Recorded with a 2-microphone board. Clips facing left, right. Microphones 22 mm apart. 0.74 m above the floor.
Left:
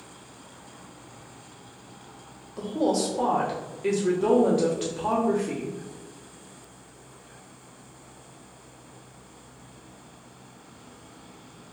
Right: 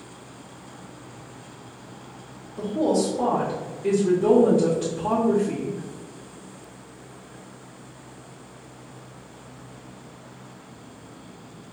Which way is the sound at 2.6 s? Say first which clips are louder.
Right 3 dB; 50° left (ahead or behind).